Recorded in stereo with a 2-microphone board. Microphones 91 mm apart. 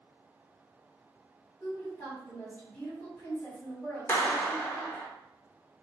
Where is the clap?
25° left (ahead or behind), 0.6 m.